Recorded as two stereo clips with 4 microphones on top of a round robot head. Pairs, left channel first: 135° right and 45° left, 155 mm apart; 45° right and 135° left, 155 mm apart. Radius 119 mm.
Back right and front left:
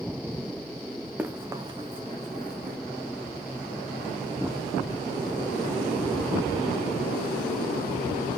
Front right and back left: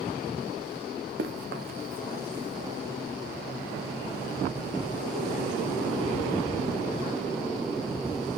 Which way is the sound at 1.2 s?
125° left.